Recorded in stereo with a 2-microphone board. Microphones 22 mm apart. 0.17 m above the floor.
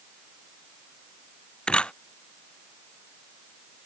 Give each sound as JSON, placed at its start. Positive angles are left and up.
{"t": 1.7, "sound": "a camera shutter", "side_deg": 40}